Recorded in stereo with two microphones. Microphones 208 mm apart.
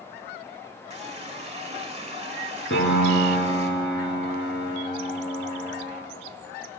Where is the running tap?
30° right (ahead or behind), 1.2 m.